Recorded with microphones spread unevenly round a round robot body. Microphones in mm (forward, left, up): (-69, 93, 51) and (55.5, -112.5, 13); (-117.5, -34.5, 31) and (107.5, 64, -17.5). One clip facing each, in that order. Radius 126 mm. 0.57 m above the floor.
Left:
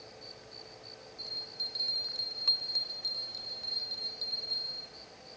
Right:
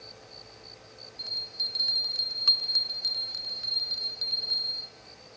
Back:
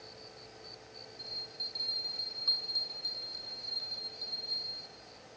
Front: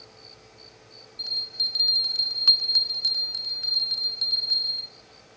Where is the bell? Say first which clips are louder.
Even, even; 15° left, 0.7 m.